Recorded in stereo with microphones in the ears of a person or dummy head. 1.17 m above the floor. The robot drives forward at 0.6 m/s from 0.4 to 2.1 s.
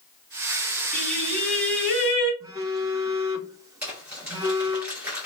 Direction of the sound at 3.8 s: 10° right (ahead or behind).